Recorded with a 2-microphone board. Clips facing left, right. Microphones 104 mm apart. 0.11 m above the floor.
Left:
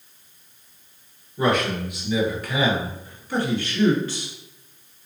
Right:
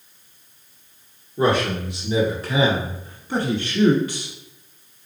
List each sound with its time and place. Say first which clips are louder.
1.4 s a man speaking: right 2 dB; 30° right (ahead or behind), 1.6 m; by 4.3 s 10° right (ahead or behind), 1.1 m